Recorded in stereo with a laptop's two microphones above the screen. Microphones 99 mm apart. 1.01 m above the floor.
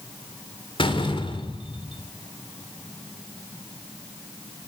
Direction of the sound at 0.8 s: 60° left (ahead or behind).